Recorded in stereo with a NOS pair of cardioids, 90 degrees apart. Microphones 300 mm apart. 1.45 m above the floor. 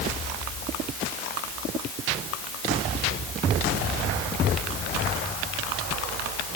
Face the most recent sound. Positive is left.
No sound to turn to.